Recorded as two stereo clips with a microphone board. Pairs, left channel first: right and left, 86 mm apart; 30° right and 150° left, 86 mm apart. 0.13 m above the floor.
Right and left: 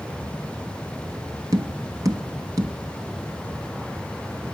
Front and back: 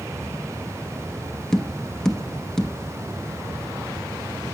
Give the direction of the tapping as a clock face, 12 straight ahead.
10 o'clock.